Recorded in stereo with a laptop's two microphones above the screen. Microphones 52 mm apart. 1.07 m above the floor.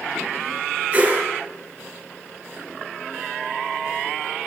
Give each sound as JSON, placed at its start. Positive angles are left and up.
{"t": 0.9, "sound": "a whoosh", "side_deg": -40, "distance_m": 6.5}